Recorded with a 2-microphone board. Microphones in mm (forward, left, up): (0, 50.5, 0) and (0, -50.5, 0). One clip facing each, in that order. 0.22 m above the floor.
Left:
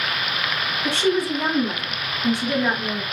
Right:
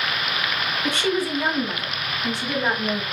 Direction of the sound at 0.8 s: 35° left (ahead or behind).